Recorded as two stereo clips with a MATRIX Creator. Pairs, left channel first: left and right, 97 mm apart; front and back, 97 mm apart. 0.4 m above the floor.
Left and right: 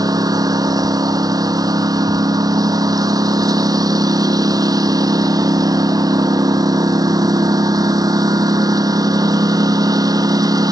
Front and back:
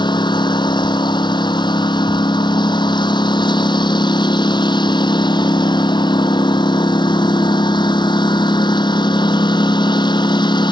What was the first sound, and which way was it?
A lawn mower, 40° right.